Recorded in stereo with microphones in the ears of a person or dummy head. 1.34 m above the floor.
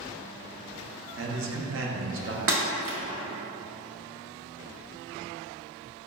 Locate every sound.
1.2 s a man speaking: 65° right (ahead or behind), 0.7 m
2.5 s breaking glass: 65° right (ahead or behind), 1.2 m